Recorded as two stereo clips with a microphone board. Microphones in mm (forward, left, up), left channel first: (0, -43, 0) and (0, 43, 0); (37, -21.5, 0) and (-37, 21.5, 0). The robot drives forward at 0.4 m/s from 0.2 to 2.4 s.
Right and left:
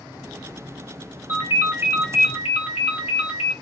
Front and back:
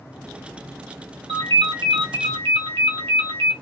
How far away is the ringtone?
About 1.1 m.